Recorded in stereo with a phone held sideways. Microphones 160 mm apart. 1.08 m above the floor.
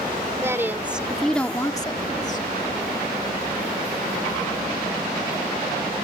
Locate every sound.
0.4 s a woman speaking: 15° right (ahead or behind); by 2.4 s 50° left (ahead or behind)